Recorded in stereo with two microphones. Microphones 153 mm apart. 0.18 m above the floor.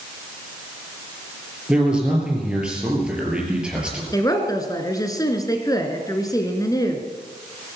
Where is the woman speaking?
25° left (ahead or behind), 1.8 m.